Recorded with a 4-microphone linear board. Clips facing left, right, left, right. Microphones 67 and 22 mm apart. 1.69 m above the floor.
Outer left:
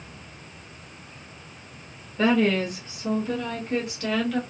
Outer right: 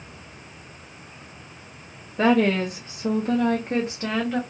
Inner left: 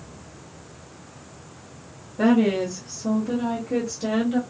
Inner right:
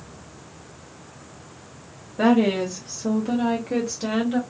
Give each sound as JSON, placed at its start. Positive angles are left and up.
{"t": 2.2, "sound": "a woman speaking", "side_deg": -50, "distance_m": 1.1}